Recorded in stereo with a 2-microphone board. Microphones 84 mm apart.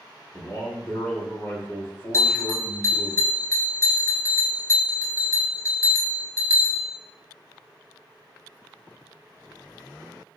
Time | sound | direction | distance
0.3 | a man speaking | 25° left (ahead or behind) | 2.5 m
2.1 | a bell | 35° left (ahead or behind) | 1.0 m